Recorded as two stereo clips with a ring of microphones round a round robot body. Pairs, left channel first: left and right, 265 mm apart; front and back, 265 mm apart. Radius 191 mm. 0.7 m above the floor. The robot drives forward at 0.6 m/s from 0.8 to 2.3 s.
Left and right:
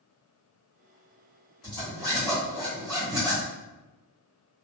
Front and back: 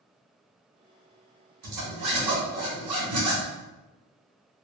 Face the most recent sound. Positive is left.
turn(degrees=180)